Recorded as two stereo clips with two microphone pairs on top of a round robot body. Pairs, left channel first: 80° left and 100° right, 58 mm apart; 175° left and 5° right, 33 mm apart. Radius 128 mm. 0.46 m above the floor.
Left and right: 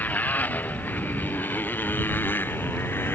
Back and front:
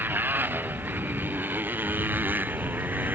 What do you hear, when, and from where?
0.0 s a motorcycle: 15° left; by 3.1 s 25° left